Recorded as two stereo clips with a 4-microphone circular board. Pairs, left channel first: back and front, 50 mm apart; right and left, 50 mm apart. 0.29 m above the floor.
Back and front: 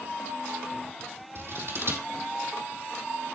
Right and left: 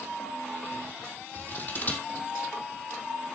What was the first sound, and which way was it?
Scissors, 35° right.